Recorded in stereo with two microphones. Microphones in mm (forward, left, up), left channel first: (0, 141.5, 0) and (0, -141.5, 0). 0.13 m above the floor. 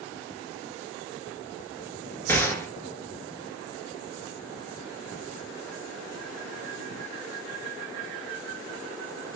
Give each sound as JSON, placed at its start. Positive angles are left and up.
{"t": 2.3, "sound": "a gunshot", "side_deg": 10, "distance_m": 0.6}